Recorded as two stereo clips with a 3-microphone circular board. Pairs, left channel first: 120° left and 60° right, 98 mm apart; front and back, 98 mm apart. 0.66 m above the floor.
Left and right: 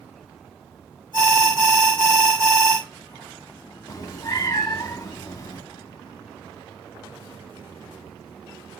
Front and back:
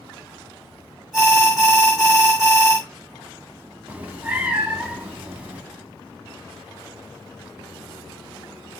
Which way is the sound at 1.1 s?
90° right.